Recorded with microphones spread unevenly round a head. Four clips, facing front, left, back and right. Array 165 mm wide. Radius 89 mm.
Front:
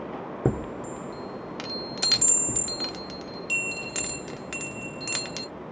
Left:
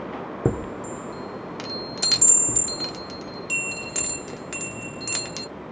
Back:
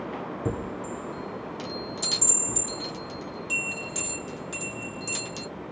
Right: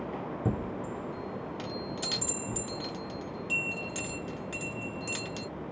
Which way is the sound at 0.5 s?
65° left.